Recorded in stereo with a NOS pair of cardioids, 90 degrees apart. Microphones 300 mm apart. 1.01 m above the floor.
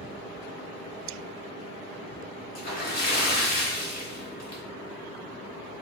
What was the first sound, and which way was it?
A splash, 60° left.